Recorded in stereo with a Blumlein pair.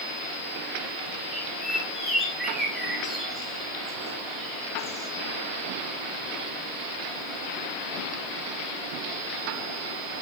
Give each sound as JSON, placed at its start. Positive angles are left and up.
{"t": 1.3, "sound": "a bird", "azimuth_deg": -5, "distance_m": 7.0}